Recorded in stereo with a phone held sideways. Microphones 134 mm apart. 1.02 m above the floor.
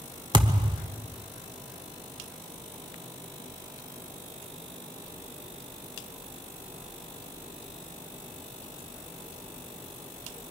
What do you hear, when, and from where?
0.3 s a thud: 35° right (ahead or behind), 1.0 m